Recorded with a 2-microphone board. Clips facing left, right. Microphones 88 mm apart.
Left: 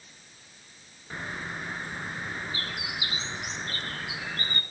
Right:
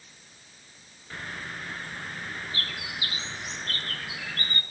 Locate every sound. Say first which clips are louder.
1.1 s a bird: left 2 dB; 20° left (ahead or behind), 1.7 m